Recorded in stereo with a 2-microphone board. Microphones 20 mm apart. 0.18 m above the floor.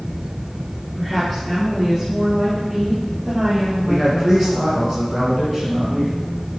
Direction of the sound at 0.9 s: 5° right (ahead or behind).